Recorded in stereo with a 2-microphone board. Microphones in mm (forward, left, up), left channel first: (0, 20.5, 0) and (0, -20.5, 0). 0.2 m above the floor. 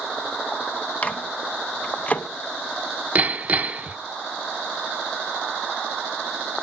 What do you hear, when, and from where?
1.0 s a microwave: 35° left (ahead or behind), 1.0 m
3.1 s hammering: 35° right (ahead or behind), 0.8 m